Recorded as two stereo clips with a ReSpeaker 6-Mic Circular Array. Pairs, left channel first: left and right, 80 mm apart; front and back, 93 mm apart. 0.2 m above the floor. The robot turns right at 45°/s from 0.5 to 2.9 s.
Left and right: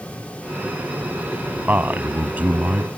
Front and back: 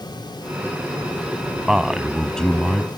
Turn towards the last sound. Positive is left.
turn(degrees=-50)